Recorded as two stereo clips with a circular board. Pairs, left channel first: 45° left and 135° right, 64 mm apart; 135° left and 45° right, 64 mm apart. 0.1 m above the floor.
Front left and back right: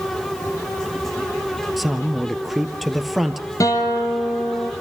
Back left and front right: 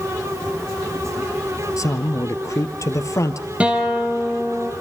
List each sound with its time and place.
1.8 s a man speaking: 135° left, 1.9 m
3.6 s a guitar: 25° left, 3 m